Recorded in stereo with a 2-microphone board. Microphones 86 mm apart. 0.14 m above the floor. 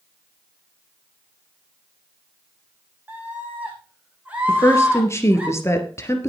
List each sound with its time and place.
3.1 s a scream: 15° right (ahead or behind), 6 m
4.5 s a woman speaking: 30° left (ahead or behind), 2.5 m